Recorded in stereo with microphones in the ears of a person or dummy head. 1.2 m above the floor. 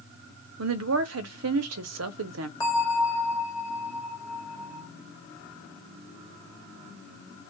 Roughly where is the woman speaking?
Right.